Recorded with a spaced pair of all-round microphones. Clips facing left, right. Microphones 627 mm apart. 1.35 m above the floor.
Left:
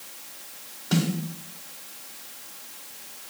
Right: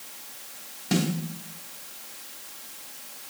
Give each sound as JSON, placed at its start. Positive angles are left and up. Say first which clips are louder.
{"t": 0.9, "sound": "a snare drum", "louder": "even", "side_deg": -45, "distance_m": 1.6}